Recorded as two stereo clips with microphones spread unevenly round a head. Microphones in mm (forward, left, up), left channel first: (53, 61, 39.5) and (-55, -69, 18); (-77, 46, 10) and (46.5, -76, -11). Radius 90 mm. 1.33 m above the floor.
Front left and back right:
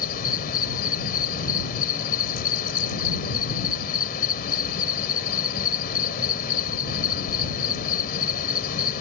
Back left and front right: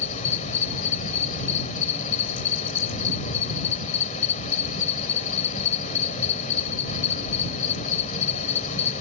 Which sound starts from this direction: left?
An insect, at 0.0 s.